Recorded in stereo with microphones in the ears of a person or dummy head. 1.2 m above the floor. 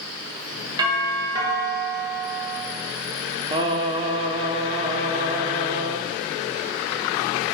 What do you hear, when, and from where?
0.8 s a doorbell: 25° right (ahead or behind), 1.5 m
3.5 s singing: 30° right (ahead or behind), 0.9 m